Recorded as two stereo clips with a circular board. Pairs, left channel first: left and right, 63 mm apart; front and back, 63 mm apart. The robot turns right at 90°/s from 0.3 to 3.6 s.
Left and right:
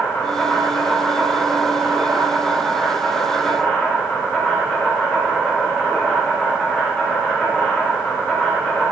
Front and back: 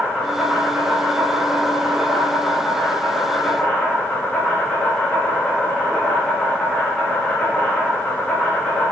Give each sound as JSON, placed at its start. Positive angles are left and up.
{"t": 0.0, "sound": "an insect", "azimuth_deg": 100, "distance_m": 1.0}